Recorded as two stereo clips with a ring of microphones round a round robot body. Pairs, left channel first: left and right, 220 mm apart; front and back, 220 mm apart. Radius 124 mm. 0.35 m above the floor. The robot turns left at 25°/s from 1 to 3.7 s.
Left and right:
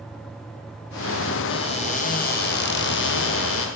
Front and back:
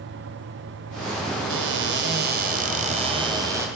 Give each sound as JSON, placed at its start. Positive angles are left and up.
{"t": 1.5, "sound": "a cupboard door", "azimuth_deg": 155, "distance_m": 1.2}